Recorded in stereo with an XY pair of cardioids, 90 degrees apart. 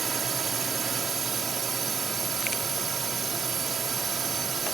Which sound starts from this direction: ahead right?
A drone, at 0.0 s.